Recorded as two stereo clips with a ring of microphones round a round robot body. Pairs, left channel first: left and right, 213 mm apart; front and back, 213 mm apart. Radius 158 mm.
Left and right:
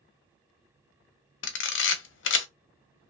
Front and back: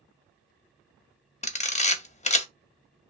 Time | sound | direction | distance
1.4 | a camera shutter | 60° left | 0.5 m